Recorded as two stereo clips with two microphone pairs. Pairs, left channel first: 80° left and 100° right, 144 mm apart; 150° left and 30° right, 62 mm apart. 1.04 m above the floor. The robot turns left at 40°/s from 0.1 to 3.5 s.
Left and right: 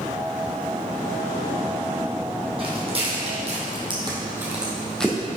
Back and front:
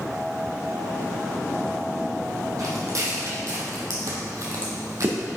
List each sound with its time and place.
2.6 s footsteps: 50° right, 3 m; by 5.4 s 5° left, 2.5 m